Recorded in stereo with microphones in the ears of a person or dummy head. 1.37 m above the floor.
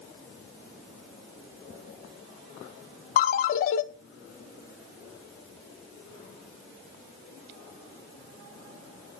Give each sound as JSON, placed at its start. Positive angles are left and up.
{"t": 3.2, "sound": "a ringtone", "side_deg": 50, "distance_m": 0.9}